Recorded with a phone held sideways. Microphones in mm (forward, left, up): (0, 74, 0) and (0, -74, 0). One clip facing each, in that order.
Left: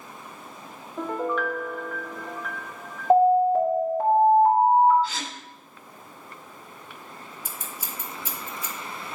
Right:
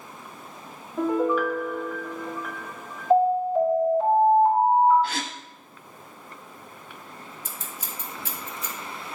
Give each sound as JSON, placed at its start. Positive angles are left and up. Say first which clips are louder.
{"t": 1.0, "sound": "a piano", "louder": "right 5 dB", "side_deg": -5, "distance_m": 0.8}
{"t": 3.1, "sound": "an alarm", "louder": "left 3 dB", "side_deg": 65, "distance_m": 2.5}
{"t": 5.0, "sound": "a gasp", "louder": "right 2 dB", "side_deg": -60, "distance_m": 1.2}
{"t": 7.5, "sound": "scissors", "louder": "left 2 dB", "side_deg": 10, "distance_m": 1.5}